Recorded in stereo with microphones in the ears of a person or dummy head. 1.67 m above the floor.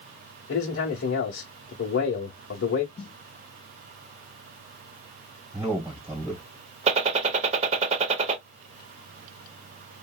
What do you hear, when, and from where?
0.5 s a man speaking: 60° left (ahead or behind), 0.9 m
3.0 s a snare drum: 20° left (ahead or behind), 1.7 m
5.5 s a man speaking: 25° right (ahead or behind), 1.7 m
6.9 s a gunshot: 35° right (ahead or behind), 0.6 m